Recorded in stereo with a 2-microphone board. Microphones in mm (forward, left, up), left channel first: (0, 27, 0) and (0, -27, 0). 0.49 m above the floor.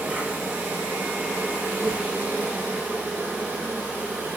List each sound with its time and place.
0.0 s an insect: 30° right (ahead or behind), 1.8 m